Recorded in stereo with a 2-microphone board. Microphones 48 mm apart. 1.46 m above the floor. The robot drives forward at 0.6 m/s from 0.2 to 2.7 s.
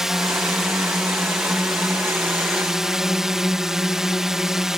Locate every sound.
0.0 s a drone: 10° right (ahead or behind)